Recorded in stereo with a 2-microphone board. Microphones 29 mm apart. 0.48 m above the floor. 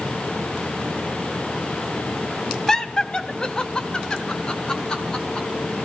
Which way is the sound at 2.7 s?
20° left (ahead or behind).